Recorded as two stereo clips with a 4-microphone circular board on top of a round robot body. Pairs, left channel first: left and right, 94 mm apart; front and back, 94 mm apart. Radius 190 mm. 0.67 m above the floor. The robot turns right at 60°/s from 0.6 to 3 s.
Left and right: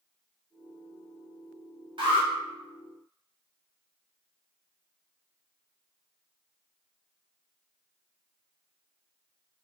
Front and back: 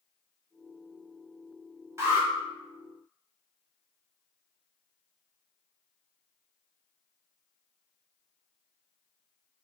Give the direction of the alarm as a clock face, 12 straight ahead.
4 o'clock.